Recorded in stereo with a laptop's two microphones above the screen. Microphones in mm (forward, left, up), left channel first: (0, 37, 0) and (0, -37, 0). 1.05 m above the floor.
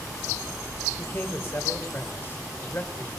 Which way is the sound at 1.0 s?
35° left (ahead or behind).